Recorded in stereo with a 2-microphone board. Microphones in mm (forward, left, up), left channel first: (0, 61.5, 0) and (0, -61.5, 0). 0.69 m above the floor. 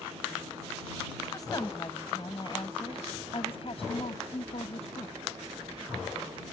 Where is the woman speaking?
30° left (ahead or behind); by 5.2 s 65° left (ahead or behind).